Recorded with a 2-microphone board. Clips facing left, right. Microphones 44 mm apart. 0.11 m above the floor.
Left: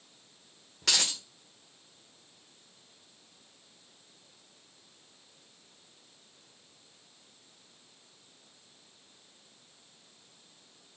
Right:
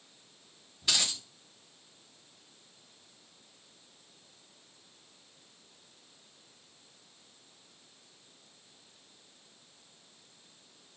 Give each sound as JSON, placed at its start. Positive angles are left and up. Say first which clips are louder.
{"t": 0.8, "sound": "a dropped coin", "louder": "left 1 dB", "side_deg": 80, "distance_m": 2.0}